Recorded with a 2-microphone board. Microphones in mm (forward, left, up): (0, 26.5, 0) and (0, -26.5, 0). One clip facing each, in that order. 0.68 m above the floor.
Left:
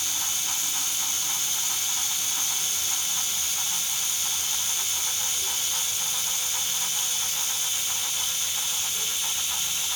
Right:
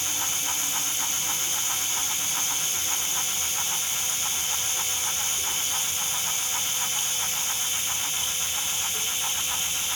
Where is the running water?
25° right (ahead or behind), 7.5 m.